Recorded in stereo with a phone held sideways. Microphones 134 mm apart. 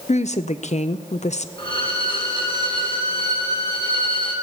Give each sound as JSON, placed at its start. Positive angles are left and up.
{"t": 0.1, "sound": "a woman speaking", "side_deg": 60, "distance_m": 0.6}
{"t": 1.6, "sound": "a violin", "side_deg": 40, "distance_m": 2.5}